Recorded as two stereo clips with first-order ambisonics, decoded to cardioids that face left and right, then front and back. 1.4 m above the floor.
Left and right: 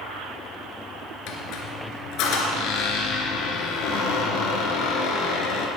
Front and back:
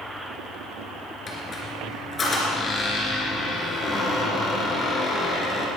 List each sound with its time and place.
1.3 s a squeak: 65° left, 2.5 m